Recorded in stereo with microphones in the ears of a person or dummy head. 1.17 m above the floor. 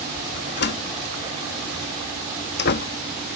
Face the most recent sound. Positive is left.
turn(degrees=50)  # may be behind; listen again after turning